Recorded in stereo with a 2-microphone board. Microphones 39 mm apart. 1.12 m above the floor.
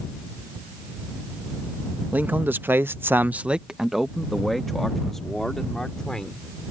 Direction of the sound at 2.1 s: 50° right (ahead or behind).